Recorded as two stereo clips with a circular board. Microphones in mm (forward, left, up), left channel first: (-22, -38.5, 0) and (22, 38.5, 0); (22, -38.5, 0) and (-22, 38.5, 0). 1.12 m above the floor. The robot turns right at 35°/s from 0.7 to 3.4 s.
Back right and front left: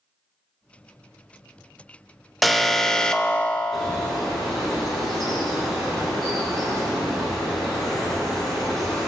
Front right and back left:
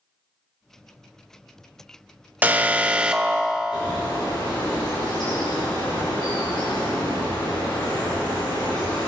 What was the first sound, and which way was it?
An alarm, 150° left.